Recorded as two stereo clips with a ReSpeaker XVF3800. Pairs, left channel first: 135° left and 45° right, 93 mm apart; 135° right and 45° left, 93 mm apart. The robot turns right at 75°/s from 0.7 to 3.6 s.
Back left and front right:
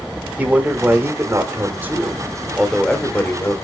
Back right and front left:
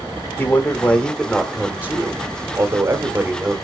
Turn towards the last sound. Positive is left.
turn(degrees=125)